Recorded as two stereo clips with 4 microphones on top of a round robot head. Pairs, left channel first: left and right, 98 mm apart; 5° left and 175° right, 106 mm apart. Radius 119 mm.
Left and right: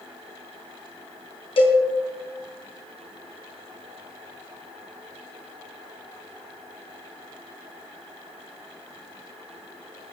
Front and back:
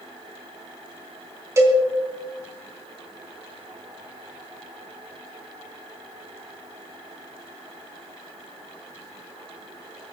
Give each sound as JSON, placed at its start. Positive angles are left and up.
{"t": 1.6, "sound": "a cowbell", "azimuth_deg": 120, "distance_m": 3.0}